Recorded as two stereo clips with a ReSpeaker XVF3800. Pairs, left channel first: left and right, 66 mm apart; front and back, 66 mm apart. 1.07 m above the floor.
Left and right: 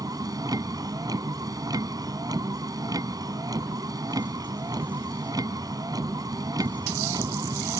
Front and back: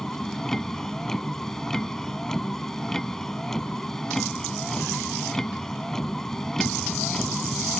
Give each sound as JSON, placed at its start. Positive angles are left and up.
{"t": 0.0, "sound": "a vehicle", "azimuth_deg": -80}